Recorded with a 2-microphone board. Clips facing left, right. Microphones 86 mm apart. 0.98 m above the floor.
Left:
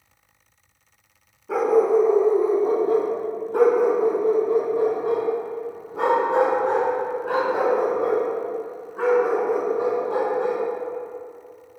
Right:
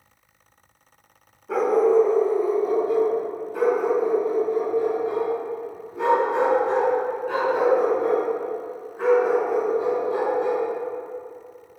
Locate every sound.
1.5 s a dog barking: 5° left (ahead or behind), 1.2 m; by 10.6 s 70° left (ahead or behind), 4.5 m